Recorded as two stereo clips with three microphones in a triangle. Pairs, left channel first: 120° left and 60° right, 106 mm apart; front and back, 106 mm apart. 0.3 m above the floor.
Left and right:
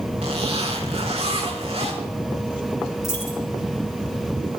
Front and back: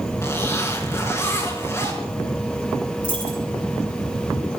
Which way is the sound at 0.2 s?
60° right.